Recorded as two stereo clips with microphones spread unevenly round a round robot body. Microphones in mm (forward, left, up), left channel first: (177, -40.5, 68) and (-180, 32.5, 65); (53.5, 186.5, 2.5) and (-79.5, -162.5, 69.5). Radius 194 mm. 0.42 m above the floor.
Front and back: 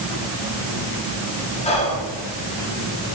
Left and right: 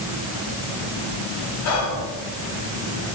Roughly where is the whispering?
Ahead left.